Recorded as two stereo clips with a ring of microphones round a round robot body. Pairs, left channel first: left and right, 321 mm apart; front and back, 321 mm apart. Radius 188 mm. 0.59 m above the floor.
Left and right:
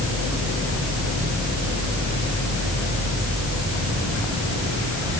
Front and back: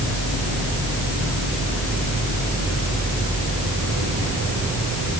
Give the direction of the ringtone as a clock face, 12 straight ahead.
I don't hear a ringtone.